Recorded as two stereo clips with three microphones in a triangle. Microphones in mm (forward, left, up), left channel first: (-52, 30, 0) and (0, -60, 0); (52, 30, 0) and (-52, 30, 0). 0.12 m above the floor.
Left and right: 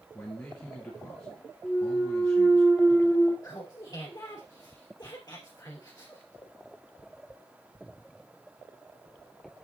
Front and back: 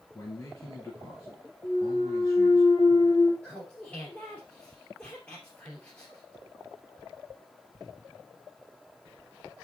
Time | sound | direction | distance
0.1 | a man speaking | 55° left | 2.5 m
1.6 | a clunk | 15° left | 2.5 m
3.4 | laughter | 70° left | 2.5 m